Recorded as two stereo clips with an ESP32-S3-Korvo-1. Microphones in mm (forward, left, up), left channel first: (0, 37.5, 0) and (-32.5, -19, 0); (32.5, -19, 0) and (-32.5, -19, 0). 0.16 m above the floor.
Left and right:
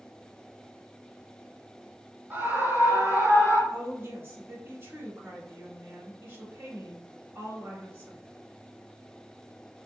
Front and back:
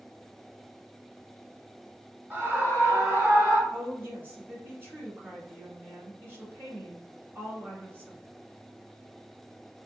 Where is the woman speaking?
145° right, 1.5 m.